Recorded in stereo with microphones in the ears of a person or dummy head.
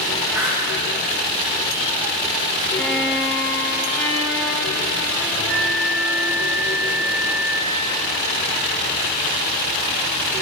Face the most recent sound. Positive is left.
turn(degrees=-45)  # may be behind; listen again after turning